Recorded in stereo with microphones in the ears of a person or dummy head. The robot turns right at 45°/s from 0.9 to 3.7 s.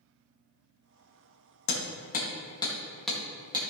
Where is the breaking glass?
No breaking glass in this recording.